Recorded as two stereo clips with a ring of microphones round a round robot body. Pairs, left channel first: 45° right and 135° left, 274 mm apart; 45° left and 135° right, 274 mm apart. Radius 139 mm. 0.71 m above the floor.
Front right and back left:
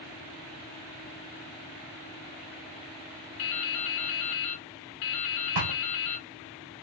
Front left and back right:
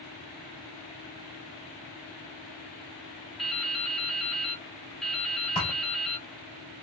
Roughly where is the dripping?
Ahead right.